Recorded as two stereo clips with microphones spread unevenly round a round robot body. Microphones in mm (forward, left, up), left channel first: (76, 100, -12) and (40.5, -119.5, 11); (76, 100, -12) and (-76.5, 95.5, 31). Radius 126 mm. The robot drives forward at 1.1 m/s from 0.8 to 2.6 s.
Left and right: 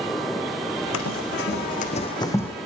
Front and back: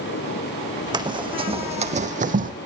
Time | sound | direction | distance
0.9 | running footsteps | 125° left | 1.5 m